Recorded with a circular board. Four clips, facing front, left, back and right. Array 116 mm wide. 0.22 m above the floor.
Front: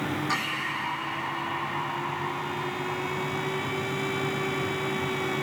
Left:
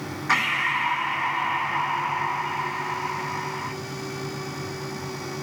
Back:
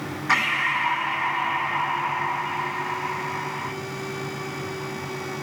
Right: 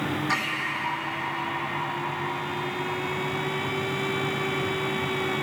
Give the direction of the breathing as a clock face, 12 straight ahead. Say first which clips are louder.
Left 4 dB, back 6 dB; 7 o'clock.